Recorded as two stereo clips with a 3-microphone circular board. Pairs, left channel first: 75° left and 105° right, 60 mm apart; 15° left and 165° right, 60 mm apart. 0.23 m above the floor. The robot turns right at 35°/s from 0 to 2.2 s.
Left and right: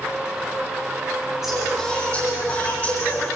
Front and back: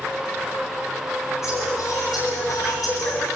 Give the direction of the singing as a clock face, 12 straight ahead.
1 o'clock.